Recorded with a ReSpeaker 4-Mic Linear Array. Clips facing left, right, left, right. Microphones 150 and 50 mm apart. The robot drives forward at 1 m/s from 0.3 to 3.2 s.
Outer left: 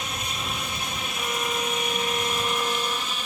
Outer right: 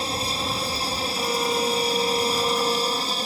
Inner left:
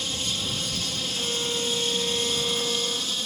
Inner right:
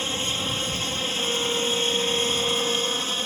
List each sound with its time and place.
0.0 s an aircraft: 30° right (ahead or behind); by 3.3 s 35° right (ahead or behind)
1.1 s a violin: 20° right (ahead or behind); by 3.2 s 15° right (ahead or behind)